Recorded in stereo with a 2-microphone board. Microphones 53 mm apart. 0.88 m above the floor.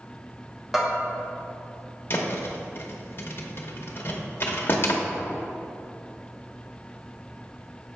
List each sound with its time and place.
0.7 s a bell: centre (ahead or behind), 1.2 m
2.1 s a thud: 50° left (ahead or behind), 0.8 m